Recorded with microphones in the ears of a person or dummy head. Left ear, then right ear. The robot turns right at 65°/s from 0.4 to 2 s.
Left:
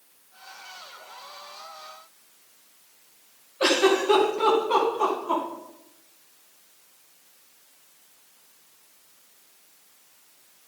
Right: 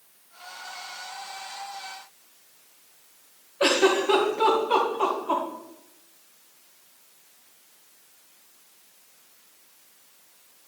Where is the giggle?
Centre (ahead or behind), 1.3 m.